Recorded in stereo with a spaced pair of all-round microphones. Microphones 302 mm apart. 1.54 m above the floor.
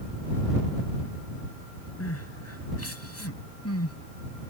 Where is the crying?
50° left (ahead or behind).